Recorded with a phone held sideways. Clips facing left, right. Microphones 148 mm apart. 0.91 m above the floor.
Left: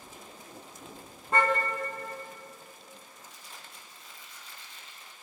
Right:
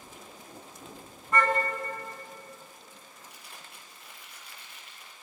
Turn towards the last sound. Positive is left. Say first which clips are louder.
# even
turn(degrees=-80)